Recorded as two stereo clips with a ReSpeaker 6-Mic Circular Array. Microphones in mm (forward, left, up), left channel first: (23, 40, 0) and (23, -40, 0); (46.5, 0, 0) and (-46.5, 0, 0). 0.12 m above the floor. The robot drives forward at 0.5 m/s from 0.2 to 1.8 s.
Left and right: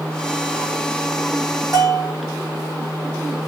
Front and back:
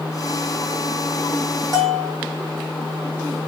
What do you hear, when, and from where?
1.7 s a bell: 130° right, 1.6 m; by 2.1 s 135° right, 1.6 m